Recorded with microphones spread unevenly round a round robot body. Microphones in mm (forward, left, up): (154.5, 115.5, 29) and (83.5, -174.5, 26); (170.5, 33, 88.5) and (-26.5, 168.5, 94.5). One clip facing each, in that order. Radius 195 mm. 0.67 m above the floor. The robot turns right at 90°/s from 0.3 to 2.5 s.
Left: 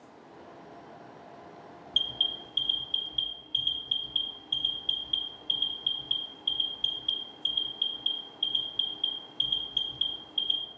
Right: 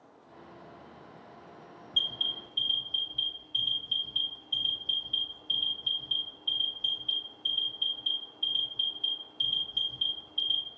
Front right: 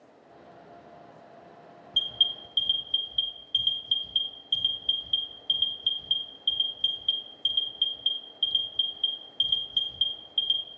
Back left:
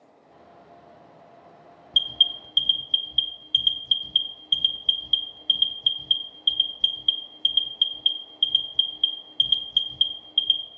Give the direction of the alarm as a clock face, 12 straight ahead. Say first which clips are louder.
Left 2 dB, back left 1 dB; 9 o'clock.